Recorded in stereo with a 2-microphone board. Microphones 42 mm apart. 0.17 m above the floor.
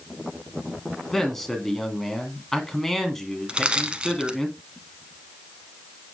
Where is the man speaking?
5° left (ahead or behind), 1.8 m.